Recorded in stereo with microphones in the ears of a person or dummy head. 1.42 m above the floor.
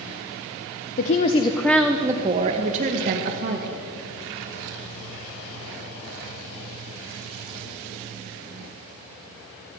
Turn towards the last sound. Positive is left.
turn(degrees=-50)  # may be behind; listen again after turning